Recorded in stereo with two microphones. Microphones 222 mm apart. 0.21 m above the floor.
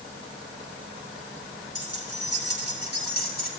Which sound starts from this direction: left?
Keys jangling, at 1.8 s.